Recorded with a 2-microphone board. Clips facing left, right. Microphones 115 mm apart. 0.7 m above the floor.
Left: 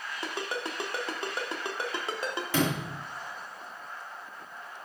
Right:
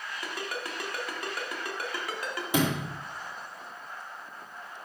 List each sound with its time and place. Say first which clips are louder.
0.2 s a ringtone: left 3 dB; 25° left (ahead or behind), 0.9 m
2.5 s a sliding door: right 2 dB; 20° right (ahead or behind), 1.8 m